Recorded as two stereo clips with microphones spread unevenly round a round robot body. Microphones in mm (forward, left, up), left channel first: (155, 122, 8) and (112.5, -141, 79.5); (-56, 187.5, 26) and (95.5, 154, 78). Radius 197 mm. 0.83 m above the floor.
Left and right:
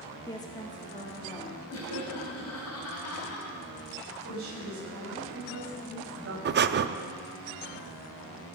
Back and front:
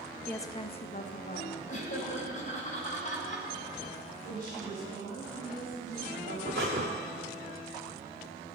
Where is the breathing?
50° right, 0.6 m.